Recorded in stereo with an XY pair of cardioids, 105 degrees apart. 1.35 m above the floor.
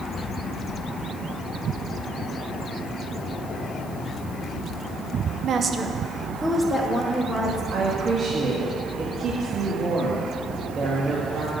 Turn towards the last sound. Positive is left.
turn(degrees=-40)